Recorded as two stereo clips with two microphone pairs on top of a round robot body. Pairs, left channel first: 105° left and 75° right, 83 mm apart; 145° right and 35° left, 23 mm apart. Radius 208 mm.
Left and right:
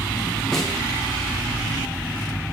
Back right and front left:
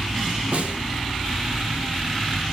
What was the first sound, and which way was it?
A snare drum, 20° left.